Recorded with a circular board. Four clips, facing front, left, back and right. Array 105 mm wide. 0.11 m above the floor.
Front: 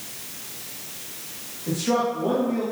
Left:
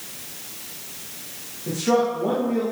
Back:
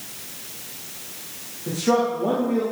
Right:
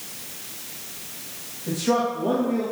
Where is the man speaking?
150° left, 8.5 m.